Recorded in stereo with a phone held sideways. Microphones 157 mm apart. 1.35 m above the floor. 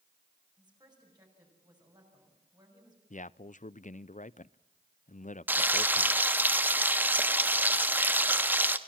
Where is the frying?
10° right (ahead or behind), 1.1 m.